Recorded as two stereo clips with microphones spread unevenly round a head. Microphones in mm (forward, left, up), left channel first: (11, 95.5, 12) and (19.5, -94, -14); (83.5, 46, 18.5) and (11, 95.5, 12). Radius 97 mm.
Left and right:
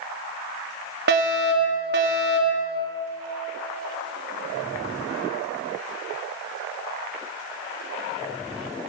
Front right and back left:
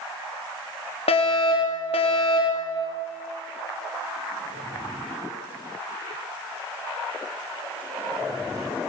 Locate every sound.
1.1 s a fire alarm: 55° right, 5 m